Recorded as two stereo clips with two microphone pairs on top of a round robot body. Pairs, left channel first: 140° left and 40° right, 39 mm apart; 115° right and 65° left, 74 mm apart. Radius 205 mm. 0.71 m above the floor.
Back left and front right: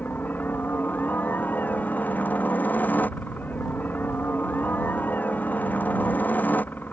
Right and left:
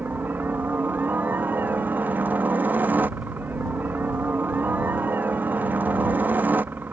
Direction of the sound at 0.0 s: 115° left.